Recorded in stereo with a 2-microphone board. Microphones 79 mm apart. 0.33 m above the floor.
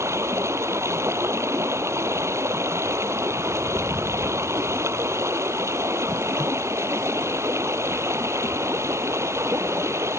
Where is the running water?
35° right (ahead or behind).